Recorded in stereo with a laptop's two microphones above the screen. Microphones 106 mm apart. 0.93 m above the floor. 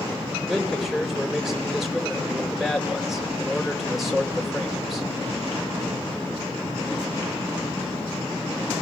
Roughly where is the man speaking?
Centre.